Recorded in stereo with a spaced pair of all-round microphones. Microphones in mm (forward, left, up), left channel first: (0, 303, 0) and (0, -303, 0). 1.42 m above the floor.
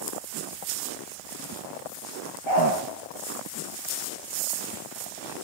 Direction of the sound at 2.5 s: 50° right (ahead or behind).